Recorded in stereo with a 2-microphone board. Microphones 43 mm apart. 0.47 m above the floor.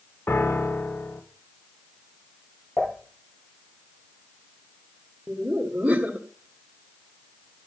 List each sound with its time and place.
0.3 s a piano: 65° left (ahead or behind), 1.3 m
2.8 s dishes clattering: 60° left (ahead or behind), 10 m
5.3 s laughter: 30° right (ahead or behind), 1.7 m